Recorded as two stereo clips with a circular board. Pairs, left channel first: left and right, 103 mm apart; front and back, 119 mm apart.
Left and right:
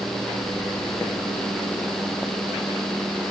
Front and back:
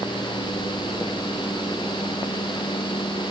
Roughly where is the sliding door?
I don't hear a sliding door.